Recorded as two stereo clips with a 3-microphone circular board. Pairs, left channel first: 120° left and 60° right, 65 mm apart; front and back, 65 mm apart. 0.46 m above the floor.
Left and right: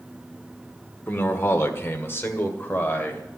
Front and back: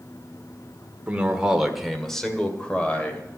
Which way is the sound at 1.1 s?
125° left.